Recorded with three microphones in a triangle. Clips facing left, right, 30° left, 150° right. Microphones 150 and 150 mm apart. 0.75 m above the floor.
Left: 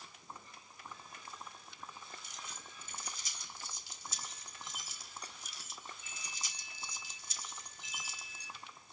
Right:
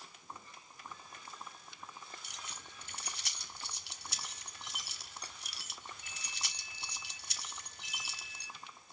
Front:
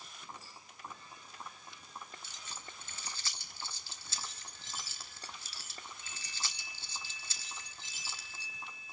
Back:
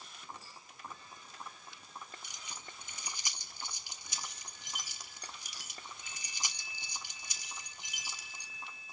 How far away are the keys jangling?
About 1.0 m.